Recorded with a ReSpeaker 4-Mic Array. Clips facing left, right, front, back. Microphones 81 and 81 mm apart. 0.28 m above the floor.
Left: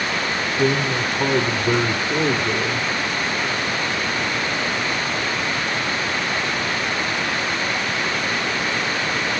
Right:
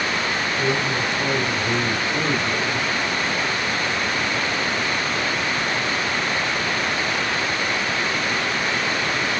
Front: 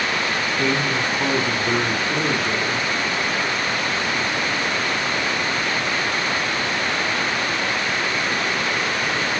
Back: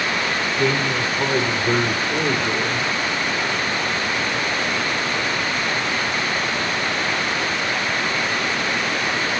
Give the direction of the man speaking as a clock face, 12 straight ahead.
9 o'clock.